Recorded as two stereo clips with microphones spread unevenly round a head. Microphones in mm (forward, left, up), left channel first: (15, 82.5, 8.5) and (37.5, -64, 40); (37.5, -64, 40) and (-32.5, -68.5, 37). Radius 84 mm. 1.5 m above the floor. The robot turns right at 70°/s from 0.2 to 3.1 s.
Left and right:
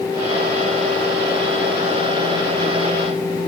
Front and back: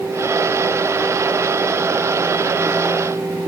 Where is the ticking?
I don't hear ticking.